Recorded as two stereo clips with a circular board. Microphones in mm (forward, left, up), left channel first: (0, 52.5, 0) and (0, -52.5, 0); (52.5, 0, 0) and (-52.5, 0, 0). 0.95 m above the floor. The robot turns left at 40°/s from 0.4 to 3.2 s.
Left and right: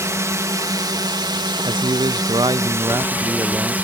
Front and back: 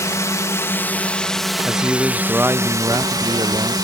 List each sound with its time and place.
0.0 s a drone: 45° right; by 3.9 s 155° right
1.6 s a man speaking: 85° right; by 3.8 s 145° right